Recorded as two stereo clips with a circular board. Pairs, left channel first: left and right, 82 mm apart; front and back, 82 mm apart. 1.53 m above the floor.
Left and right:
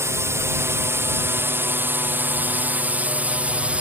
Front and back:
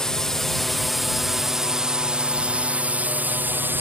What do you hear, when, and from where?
0.0 s a drone: 80° right; by 3.8 s 150° right